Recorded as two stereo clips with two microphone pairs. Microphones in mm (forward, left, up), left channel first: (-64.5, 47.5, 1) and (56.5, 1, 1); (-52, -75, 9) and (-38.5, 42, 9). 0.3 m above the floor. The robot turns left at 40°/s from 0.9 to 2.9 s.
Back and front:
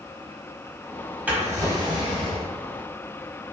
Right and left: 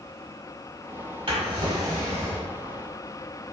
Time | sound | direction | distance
1.3 | a drawer | 55° left | 0.9 m